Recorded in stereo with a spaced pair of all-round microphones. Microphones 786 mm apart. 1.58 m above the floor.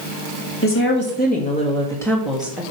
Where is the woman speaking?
15° left (ahead or behind), 3 m; by 2.6 s 5° right (ahead or behind), 2.5 m.